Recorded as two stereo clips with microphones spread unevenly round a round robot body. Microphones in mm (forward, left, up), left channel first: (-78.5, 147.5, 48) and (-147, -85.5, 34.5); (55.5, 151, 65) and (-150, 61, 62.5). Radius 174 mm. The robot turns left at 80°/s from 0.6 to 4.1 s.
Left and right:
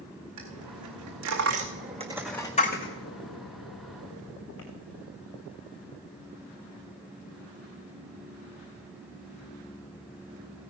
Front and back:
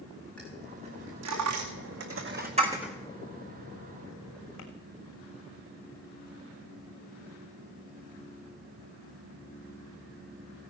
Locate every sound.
0.4 s a dropped coin: 65° right, 1.8 m; by 4.7 s 15° left, 1.8 m